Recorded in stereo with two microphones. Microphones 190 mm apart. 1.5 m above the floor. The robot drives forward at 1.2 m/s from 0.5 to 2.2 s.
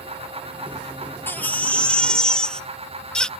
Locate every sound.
1.3 s a baby crying: 10° left (ahead or behind); by 3.3 s 5° left (ahead or behind)